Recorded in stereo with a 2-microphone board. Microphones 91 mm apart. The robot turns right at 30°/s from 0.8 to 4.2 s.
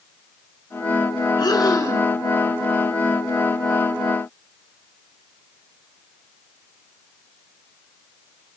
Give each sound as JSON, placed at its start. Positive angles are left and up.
{"t": 1.4, "sound": "breathing", "side_deg": 50, "distance_m": 2.0}